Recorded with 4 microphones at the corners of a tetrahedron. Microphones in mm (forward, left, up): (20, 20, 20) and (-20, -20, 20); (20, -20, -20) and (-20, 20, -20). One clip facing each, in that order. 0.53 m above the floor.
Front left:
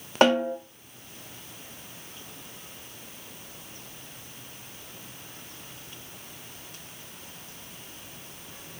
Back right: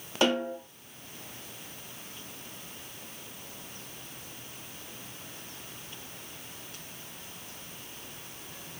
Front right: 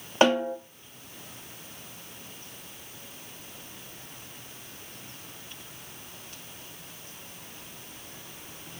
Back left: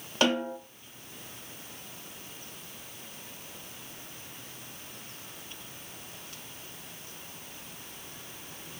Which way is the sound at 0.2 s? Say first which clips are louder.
Front left 6 dB, front right 5 dB; 15° left.